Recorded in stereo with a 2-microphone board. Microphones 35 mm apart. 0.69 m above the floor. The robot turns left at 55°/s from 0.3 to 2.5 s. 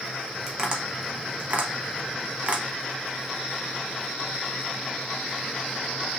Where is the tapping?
15° right (ahead or behind), 0.8 m; by 2.6 s 35° right (ahead or behind), 0.8 m.